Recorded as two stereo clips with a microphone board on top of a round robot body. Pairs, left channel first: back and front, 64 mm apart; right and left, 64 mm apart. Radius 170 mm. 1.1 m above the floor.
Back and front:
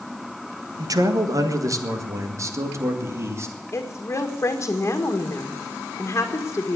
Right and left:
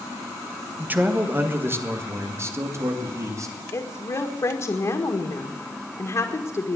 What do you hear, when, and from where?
0.8 s a man speaking: 25° left, 1.8 m; by 3.5 s 50° left, 3 m
3.7 s a woman speaking: 125° right, 1.9 m